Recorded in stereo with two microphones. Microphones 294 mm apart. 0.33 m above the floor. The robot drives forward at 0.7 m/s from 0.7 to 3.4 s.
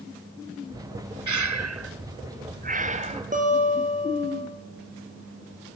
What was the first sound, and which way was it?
Breathing, 80° right.